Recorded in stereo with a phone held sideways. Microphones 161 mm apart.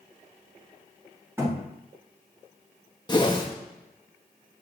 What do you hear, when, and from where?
1.4 s a thud: 15° right (ahead or behind), 4.5 m
3.1 s a whoosh: 25° left (ahead or behind), 1.0 m